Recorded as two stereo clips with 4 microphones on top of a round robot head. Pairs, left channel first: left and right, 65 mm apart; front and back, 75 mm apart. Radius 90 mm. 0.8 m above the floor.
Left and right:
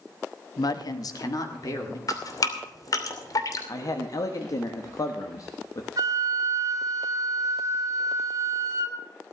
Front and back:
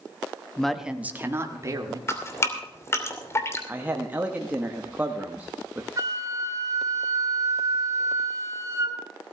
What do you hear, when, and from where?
0.6 s a woman speaking: 80° left, 1.2 m; by 2.0 s 135° left, 2.5 m
2.1 s dripping: 60° left, 2.5 m
3.7 s a man speaking: 115° left, 1.3 m
6.0 s a flute: 130° right, 2 m